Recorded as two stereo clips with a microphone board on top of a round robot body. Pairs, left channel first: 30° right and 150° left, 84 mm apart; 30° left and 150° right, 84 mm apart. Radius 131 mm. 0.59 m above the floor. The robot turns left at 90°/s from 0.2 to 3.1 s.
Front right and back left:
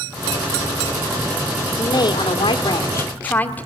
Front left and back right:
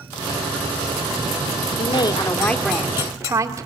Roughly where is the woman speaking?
Ahead.